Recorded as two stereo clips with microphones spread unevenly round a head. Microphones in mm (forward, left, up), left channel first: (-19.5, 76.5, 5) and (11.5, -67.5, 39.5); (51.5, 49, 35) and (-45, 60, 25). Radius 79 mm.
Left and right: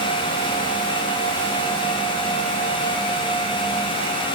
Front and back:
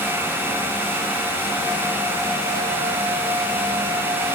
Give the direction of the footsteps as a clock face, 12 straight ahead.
I don't hear footsteps.